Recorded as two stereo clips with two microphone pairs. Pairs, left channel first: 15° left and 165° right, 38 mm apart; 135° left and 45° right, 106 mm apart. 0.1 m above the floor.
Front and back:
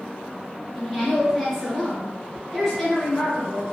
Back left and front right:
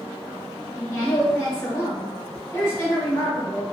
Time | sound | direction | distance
0.8 | a woman speaking | 95° left | 1.9 m